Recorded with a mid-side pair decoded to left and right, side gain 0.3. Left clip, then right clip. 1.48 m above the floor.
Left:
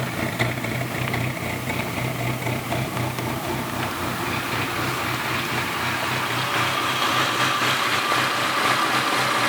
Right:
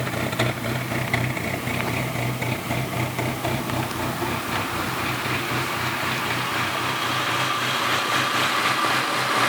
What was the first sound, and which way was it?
Only background noise.